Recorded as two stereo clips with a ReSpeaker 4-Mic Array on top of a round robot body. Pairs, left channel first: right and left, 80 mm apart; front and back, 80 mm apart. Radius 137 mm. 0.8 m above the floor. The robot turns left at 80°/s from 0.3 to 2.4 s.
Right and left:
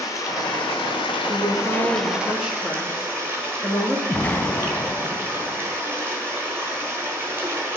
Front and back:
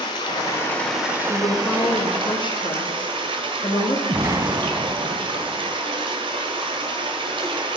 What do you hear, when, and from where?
0.0 s running water: 35° right, 1.0 m; by 7.8 s 155° left, 1.0 m
1.3 s a woman speaking: 100° left, 1.7 m; by 4.0 s 10° left, 1.7 m
4.1 s an explosion: 150° right, 1.0 m